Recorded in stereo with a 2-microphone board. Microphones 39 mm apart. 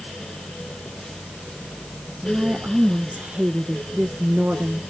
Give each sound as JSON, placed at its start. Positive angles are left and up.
{"t": 2.2, "sound": "a woman speaking", "side_deg": -40, "distance_m": 1.3}